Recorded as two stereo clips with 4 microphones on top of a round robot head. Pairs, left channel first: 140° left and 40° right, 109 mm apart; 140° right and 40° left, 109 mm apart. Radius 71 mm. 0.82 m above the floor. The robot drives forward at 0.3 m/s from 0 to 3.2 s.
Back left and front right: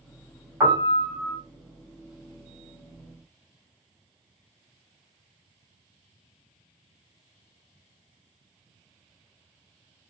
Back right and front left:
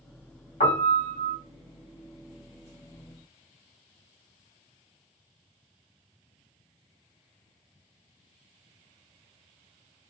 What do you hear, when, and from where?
0.6 s a piano: 105° right, 1.3 m; by 1.4 s 115° right, 1.3 m